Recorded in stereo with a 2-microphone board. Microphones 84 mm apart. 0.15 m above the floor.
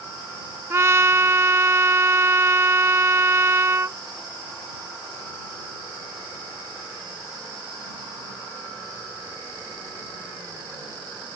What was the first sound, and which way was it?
A trumpet, 30° right (ahead or behind).